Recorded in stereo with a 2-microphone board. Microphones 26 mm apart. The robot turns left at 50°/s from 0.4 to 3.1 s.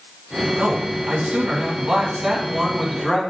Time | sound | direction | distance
0.6 | a man speaking | 65° right | 3.5 m